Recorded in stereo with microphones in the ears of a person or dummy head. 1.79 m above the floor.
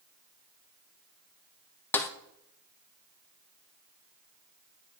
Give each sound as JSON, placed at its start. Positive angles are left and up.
{"t": 1.9, "sound": "a snare drum", "side_deg": 10, "distance_m": 0.6}